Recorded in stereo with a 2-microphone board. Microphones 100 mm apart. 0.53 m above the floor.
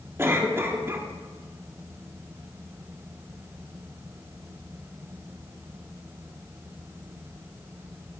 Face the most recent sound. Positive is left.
turn(degrees=-25)  # may be behind; listen again after turning